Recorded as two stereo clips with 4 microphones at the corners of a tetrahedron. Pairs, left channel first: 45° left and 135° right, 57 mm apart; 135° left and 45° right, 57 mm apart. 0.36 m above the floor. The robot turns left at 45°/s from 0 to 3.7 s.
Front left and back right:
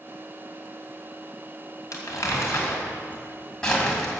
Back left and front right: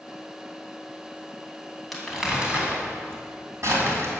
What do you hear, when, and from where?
1.9 s crumpling: 50° left, 2.5 m; by 4.2 s 35° right, 2.5 m